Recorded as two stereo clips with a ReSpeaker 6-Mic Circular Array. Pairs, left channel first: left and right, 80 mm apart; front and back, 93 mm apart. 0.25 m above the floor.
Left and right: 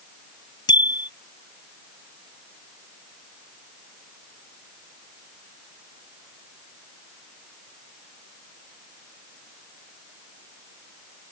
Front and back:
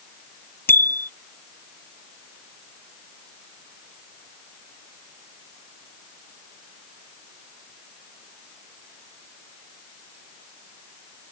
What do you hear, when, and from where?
0.7 s a bicycle bell: 65° left